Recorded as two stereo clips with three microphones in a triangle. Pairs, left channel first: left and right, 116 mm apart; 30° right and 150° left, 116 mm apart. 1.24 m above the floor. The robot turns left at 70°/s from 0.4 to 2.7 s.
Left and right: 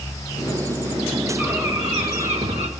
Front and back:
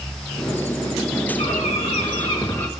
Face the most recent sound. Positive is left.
turn(degrees=-105)